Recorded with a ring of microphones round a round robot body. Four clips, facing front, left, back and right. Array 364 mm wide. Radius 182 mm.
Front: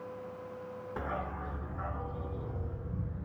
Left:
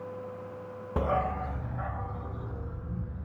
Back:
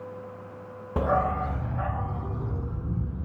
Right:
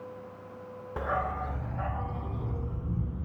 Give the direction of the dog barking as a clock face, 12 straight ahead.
7 o'clock.